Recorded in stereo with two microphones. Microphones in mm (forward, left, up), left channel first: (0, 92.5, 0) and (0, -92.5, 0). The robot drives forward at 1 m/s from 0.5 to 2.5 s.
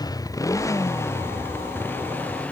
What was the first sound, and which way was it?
A motorcycle, 20° left (ahead or behind).